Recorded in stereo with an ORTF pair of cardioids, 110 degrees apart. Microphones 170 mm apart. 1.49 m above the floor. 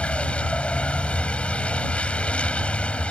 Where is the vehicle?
5° left.